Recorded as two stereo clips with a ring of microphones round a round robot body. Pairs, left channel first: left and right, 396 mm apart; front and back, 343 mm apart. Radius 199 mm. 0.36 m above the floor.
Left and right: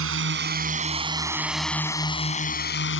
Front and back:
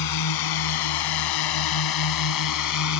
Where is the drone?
35° right; by 3.0 s 30° left.